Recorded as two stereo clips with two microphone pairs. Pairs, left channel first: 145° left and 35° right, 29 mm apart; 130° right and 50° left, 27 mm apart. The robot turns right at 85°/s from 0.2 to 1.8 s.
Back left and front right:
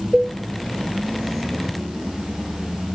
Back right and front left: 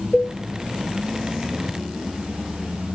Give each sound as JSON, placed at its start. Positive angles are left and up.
{"t": 0.1, "sound": "a cowbell", "azimuth_deg": -40, "distance_m": 1.9}